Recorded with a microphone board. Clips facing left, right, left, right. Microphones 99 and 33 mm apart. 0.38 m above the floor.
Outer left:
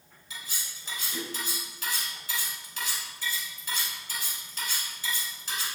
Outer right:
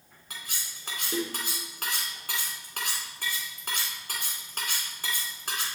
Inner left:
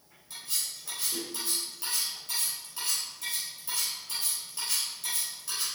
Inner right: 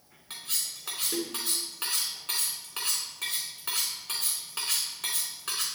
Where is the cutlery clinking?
60° right (ahead or behind), 2.5 m.